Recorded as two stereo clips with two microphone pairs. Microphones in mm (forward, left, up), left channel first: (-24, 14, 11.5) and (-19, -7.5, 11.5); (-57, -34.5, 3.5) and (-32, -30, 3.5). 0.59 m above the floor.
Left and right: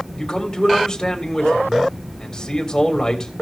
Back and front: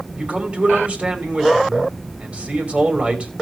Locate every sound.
0.2 s a man speaking: 45° left, 3 m